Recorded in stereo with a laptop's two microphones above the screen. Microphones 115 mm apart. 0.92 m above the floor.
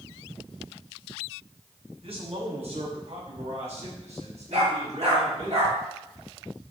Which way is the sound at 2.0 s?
60° right (ahead or behind).